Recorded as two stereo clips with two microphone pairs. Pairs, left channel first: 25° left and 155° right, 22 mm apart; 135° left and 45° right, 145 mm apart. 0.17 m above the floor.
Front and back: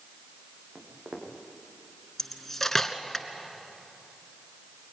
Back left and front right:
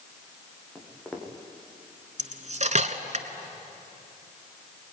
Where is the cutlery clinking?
45° right, 1.2 m.